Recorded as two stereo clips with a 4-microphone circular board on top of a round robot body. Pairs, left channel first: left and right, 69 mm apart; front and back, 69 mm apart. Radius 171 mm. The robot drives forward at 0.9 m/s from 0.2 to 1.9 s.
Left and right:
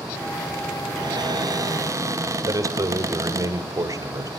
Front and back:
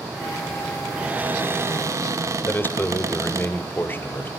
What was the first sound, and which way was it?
A cupboard door, 100° right.